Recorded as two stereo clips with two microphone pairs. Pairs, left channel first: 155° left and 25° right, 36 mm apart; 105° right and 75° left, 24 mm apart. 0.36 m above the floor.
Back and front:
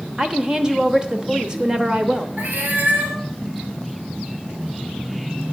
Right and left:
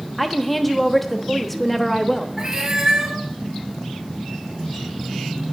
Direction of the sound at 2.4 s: 10° left.